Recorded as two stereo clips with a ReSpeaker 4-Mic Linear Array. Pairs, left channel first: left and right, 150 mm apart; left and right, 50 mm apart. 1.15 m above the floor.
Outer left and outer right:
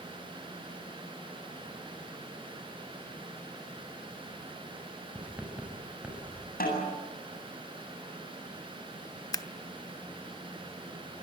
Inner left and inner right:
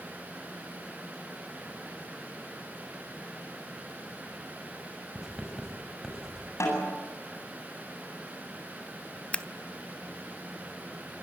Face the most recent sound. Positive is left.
turn(degrees=25)  # may be behind; listen again after turning